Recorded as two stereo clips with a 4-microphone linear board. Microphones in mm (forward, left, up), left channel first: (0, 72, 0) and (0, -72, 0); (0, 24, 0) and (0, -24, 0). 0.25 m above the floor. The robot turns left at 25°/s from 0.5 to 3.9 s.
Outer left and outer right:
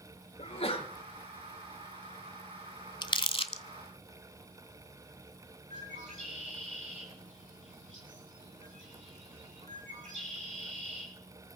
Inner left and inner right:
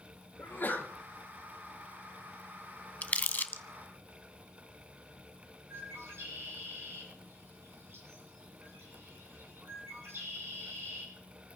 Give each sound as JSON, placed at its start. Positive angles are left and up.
{"t": 0.4, "sound": "a sneeze", "side_deg": 45, "distance_m": 3.5}
{"t": 3.0, "sound": "crumpling", "side_deg": 30, "distance_m": 0.6}
{"t": 5.7, "sound": "a bird", "side_deg": -65, "distance_m": 7.5}